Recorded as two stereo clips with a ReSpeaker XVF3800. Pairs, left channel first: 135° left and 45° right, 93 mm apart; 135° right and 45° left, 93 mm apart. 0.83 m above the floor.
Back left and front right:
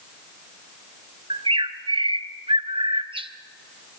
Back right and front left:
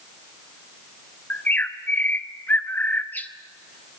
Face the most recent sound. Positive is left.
turn(degrees=-65)